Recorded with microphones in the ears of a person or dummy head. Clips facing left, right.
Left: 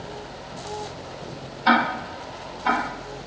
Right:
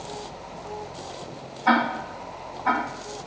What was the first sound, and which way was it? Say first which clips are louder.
Ticking: left 1 dB; 40° left (ahead or behind).